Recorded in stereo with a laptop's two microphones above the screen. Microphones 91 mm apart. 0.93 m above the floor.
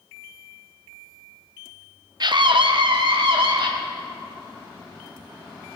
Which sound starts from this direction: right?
A scream, at 2.2 s.